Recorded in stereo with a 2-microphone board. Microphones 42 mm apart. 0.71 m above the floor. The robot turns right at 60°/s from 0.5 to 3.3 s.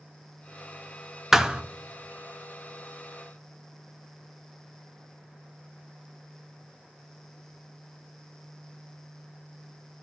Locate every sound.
1.3 s a thud: 10° right (ahead or behind), 0.5 m; by 1.6 s 25° right (ahead or behind), 0.5 m